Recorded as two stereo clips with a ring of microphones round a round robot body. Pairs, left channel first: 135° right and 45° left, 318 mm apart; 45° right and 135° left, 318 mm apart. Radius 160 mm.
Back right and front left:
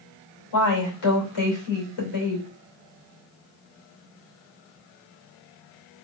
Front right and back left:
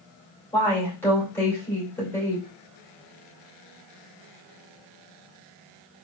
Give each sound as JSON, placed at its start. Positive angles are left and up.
{"t": 0.5, "sound": "a woman speaking", "azimuth_deg": -130, "distance_m": 2.5}